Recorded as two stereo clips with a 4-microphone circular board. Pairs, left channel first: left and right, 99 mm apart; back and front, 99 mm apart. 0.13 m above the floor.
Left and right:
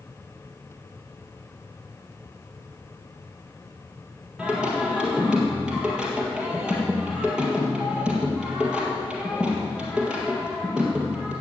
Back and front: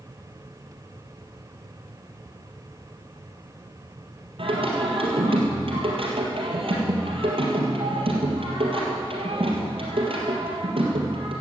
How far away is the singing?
About 3 m.